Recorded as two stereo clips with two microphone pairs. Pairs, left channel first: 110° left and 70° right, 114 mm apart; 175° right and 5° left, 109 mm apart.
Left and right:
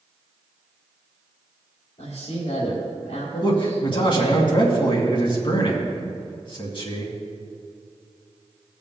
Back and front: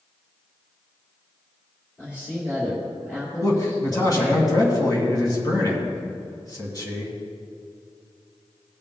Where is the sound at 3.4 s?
135° left, 2.5 m.